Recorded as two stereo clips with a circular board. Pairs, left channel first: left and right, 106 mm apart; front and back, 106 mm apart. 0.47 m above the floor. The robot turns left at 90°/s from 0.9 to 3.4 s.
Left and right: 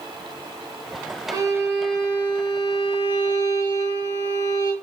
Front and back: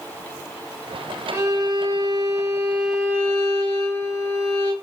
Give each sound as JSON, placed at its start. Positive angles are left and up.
{"t": 1.3, "sound": "a violin", "azimuth_deg": -115, "distance_m": 1.9}